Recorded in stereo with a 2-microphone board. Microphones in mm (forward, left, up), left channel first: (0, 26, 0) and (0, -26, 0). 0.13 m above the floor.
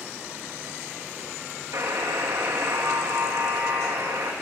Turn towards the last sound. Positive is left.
turn(degrees=-80)